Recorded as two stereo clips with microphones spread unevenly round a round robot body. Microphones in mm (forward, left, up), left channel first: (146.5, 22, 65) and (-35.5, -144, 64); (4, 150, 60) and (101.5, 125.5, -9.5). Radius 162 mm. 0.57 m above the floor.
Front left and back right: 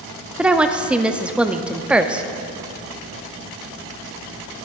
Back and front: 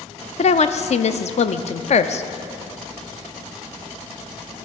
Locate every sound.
0.4 s a woman speaking: 145° left, 0.6 m